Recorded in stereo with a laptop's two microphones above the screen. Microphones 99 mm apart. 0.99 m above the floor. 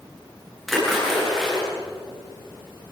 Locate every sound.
0.7 s a splash: 5° left (ahead or behind), 8.5 m